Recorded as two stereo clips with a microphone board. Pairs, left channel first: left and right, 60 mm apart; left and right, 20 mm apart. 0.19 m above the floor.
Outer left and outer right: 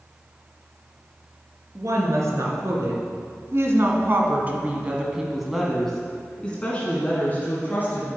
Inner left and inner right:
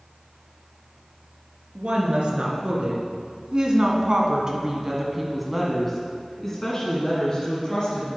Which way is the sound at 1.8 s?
65° right (ahead or behind).